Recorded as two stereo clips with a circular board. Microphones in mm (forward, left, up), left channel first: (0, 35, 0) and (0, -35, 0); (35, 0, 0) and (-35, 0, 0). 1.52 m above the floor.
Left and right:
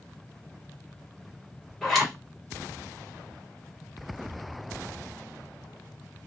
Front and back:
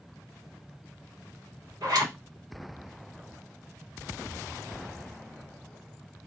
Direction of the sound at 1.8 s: Straight behind.